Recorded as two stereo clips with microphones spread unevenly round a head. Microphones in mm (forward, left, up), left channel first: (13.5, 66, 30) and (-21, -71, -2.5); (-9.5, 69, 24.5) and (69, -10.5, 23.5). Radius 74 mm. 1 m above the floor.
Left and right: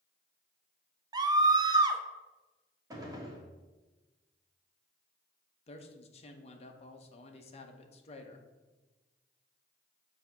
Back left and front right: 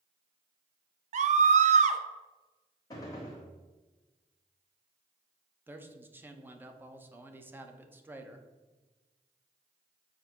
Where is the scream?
45° right, 0.8 m.